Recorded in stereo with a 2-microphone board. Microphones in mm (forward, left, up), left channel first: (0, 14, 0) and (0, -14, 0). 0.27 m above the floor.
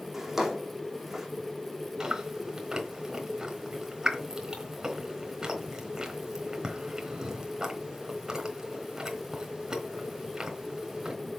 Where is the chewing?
25° right (ahead or behind), 3.5 m.